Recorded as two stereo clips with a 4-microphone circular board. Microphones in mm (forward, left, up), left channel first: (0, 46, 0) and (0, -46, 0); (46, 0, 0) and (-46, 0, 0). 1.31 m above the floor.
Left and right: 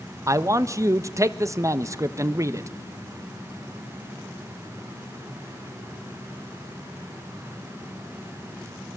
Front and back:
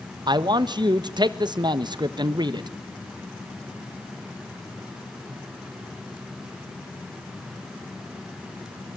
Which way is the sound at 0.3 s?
145° right.